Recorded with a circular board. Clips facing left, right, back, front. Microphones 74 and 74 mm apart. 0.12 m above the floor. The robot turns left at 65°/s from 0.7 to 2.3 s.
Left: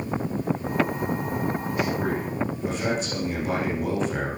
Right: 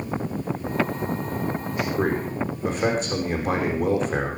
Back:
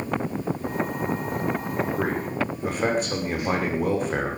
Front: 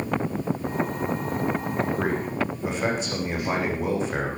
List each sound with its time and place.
2.0 s a man speaking: 115° right, 9.5 m; by 4.4 s 135° right, 9.5 m